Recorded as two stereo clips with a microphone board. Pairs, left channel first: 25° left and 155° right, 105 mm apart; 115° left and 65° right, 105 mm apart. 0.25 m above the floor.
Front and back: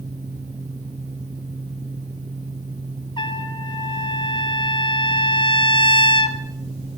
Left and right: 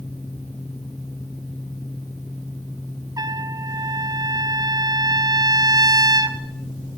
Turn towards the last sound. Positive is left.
turn(degrees=-15)